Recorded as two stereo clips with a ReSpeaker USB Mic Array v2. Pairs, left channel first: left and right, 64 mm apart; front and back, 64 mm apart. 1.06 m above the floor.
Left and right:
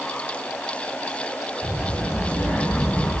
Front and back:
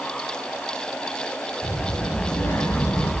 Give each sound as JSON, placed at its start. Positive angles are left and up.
{"t": 1.6, "sound": "a child speaking", "azimuth_deg": 25, "distance_m": 8.5}